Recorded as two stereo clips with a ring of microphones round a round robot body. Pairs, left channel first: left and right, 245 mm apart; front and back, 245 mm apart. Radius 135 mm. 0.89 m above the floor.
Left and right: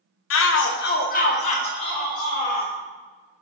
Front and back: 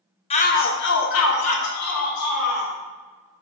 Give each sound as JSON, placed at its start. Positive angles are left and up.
{"t": 0.3, "sound": "a shout", "azimuth_deg": 65, "distance_m": 0.8}